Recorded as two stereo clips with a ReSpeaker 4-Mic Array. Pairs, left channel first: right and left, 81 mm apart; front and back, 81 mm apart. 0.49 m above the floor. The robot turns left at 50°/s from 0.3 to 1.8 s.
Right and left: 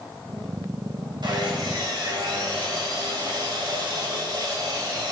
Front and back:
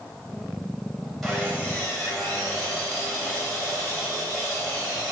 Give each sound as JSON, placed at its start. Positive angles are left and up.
{"t": 1.2, "sound": "sawing", "azimuth_deg": 90, "distance_m": 2.5}